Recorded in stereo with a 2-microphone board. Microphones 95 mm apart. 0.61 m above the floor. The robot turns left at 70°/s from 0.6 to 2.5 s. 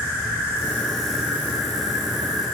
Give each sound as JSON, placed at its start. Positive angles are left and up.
{"t": 0.0, "sound": "an insect", "azimuth_deg": 35, "distance_m": 1.1}